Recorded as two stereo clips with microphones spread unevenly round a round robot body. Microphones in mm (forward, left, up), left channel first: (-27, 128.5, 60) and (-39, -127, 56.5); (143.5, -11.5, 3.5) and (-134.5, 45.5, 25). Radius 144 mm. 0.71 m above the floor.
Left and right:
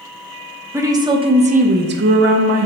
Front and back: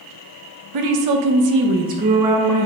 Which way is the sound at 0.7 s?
170° right.